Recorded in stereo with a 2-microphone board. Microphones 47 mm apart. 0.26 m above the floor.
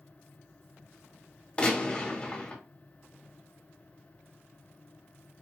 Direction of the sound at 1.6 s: 25° left (ahead or behind).